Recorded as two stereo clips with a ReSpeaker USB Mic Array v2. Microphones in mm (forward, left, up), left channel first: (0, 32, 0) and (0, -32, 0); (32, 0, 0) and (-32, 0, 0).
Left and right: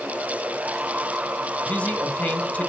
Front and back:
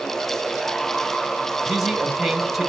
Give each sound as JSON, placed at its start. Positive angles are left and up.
{"t": 1.7, "sound": "a man speaking", "azimuth_deg": 95, "distance_m": 1.3}